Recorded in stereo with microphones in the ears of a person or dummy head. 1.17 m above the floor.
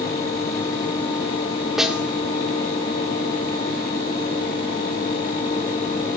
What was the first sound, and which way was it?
A snare drum, centre (ahead or behind).